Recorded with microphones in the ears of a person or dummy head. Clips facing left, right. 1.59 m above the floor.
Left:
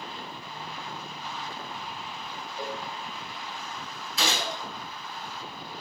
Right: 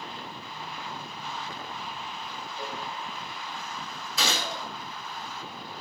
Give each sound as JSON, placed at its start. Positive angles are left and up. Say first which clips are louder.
{"t": 2.6, "sound": "a cowbell", "louder": "left 3 dB", "side_deg": 5, "distance_m": 0.6}
{"t": 4.2, "sound": "a gunshot", "louder": "left 1 dB", "side_deg": -80, "distance_m": 1.2}